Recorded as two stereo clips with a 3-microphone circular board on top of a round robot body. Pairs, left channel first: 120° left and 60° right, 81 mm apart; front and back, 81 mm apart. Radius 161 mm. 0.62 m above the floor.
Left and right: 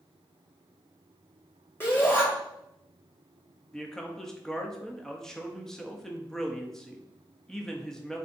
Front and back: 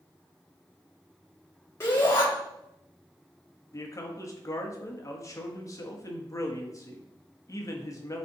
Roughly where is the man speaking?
Ahead left.